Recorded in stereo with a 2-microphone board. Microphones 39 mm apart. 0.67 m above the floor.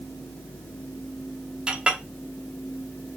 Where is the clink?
25° right (ahead or behind), 0.8 m.